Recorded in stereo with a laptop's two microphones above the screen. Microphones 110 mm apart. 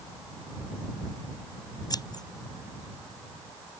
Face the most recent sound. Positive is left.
turn(degrees=40)  # may be behind; listen again after turning